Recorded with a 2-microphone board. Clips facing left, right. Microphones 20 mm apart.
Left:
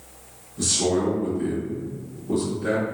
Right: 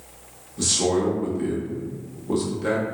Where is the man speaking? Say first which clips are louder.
Right 1 dB; 35° right (ahead or behind), 1.0 m.